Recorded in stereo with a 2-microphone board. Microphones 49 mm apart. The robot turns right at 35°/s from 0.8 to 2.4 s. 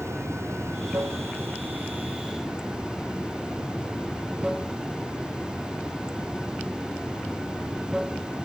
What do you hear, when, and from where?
0.0 s running water: 70° right; by 8.5 s 15° right